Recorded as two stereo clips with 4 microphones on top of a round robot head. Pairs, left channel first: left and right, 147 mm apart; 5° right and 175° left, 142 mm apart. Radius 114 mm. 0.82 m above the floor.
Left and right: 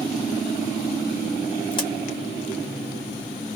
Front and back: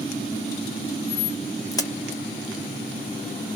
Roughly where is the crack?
Ahead left.